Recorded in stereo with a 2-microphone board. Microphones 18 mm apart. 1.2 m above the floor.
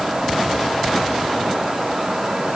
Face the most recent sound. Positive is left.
No sound to turn to.